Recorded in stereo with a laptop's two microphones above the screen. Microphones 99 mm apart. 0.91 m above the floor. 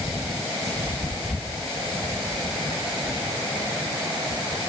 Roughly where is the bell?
I don't hear a bell.